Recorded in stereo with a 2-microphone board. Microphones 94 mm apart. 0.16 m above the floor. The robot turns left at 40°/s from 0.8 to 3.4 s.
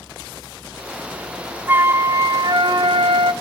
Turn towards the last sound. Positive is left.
turn(degrees=-95)